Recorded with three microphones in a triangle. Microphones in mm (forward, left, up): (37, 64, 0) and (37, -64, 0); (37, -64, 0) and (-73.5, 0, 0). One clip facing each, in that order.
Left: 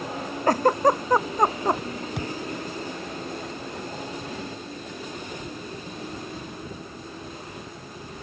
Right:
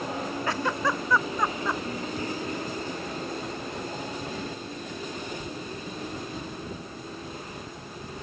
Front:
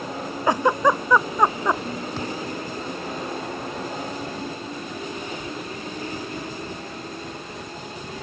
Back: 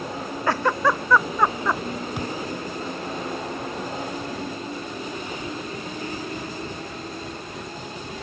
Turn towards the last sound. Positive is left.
turn(degrees=75)